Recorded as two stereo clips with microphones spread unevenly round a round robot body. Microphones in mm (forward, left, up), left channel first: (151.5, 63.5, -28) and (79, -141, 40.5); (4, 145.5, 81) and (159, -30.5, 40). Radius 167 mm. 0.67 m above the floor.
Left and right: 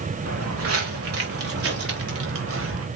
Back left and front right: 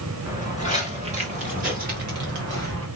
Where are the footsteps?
135° right, 4 m; by 2.9 s 100° right, 4.5 m.